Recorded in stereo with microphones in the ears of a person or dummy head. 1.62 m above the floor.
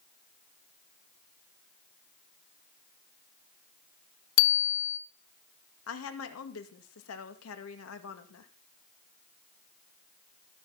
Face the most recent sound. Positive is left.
turn(degrees=80)